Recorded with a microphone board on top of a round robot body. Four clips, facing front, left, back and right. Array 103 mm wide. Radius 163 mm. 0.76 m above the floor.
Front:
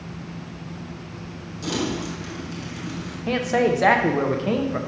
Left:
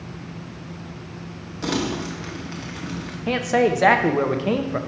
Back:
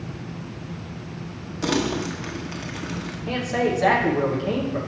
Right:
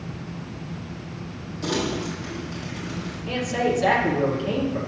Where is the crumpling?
150° left, 1.2 m.